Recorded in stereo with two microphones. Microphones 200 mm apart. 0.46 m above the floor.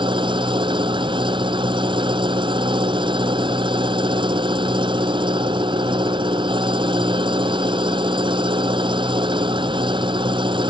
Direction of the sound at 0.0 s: 25° right (ahead or behind).